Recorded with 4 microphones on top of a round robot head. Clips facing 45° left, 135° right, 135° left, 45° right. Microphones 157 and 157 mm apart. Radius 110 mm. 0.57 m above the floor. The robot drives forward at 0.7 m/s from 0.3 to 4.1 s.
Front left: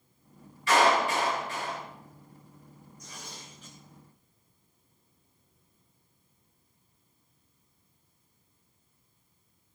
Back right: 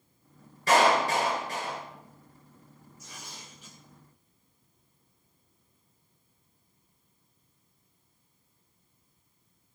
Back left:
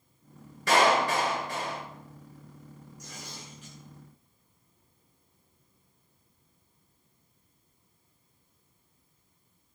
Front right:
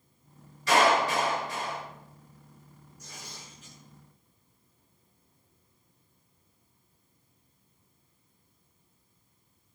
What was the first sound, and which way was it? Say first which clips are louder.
A clap: back right 1 dB, even; 175° left.